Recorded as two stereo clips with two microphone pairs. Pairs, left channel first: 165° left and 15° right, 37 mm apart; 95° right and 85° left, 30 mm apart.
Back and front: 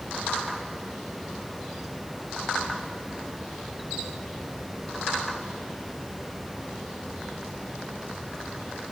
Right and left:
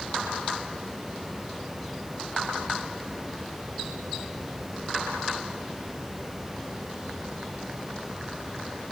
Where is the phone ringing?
No phone ringing in this recording.